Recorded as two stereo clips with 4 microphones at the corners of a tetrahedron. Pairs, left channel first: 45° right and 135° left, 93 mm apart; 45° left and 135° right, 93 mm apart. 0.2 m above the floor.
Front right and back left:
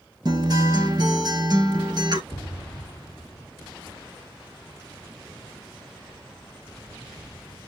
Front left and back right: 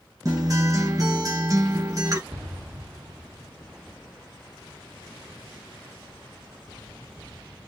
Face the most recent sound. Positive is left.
turn(degrees=-80)